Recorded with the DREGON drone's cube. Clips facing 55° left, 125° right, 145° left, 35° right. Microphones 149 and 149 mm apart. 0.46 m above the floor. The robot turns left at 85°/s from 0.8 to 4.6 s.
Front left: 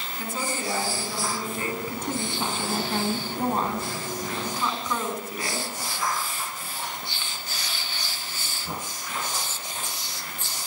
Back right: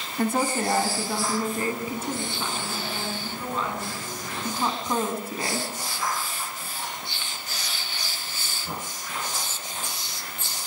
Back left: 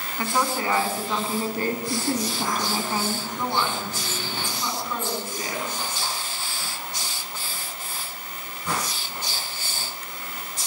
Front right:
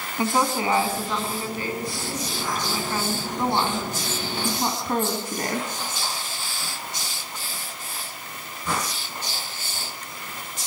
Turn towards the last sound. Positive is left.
turn(degrees=-65)